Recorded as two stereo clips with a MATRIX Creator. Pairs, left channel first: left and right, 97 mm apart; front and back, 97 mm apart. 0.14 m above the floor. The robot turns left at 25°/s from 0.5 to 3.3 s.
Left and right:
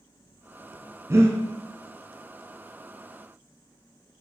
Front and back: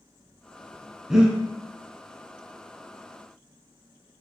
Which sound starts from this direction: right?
Breathing, at 1.1 s.